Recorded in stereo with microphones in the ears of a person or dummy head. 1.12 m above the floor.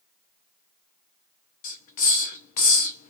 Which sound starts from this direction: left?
A hiss, at 1.6 s.